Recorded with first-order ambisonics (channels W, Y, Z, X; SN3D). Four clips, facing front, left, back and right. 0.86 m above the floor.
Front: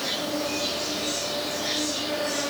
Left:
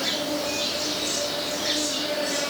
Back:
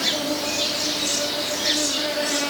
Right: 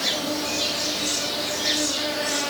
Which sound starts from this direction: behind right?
An insect, at 0.0 s.